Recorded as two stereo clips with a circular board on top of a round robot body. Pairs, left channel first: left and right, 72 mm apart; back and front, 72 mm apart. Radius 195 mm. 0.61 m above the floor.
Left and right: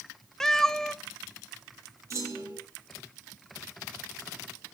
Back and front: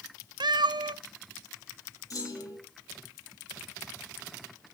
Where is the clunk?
140° right, 10 m.